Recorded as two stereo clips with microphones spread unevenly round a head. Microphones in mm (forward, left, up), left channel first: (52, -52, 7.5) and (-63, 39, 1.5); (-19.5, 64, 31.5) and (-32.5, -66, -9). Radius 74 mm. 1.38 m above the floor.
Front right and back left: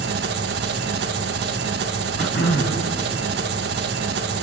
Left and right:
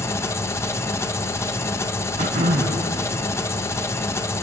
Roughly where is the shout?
I don't hear a shout.